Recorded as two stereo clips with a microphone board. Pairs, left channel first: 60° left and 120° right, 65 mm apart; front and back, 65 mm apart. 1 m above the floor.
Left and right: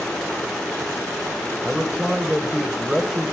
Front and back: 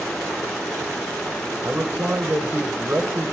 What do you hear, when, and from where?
1.6 s a man speaking: 175° right, 0.9 m